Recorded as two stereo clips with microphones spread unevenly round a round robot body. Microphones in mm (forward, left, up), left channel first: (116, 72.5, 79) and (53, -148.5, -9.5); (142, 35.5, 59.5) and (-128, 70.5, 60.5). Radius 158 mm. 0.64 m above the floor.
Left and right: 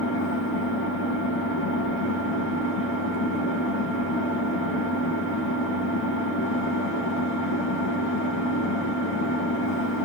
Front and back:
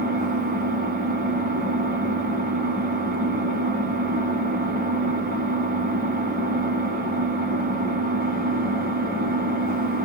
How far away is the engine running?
About 1.0 m.